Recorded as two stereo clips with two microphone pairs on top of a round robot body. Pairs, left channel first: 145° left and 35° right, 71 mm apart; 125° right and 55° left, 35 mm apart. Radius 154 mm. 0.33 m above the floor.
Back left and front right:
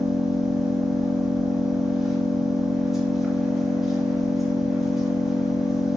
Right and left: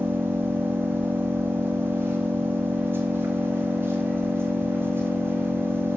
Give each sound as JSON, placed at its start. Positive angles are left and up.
{"t": 0.0, "sound": "an engine running", "azimuth_deg": 50, "distance_m": 0.8}